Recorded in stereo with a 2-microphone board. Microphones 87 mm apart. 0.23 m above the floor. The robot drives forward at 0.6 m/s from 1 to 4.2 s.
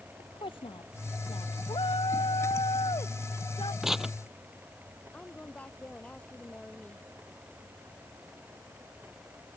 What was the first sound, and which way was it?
A woman speaking, 80° left.